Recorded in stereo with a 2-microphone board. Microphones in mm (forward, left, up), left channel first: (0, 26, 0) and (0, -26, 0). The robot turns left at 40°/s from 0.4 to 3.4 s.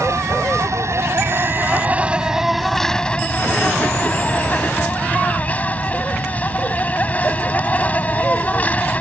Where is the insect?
90° right; by 9.0 s 150° left.